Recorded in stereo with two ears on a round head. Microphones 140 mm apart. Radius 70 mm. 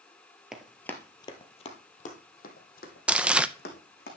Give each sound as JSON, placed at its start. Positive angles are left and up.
{"t": 0.5, "sound": "running footsteps", "side_deg": -5, "distance_m": 1.5}
{"t": 3.1, "sound": "crumpling", "side_deg": -10, "distance_m": 0.5}